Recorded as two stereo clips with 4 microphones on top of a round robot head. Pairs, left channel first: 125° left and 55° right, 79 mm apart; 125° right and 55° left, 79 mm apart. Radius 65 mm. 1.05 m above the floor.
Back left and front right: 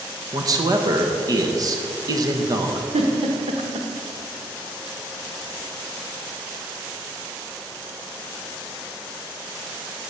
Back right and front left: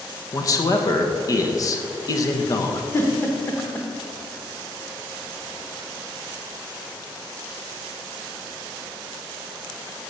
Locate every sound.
0.3 s a man speaking: 90° right, 1.2 m
2.9 s a giggle: 65° right, 0.9 m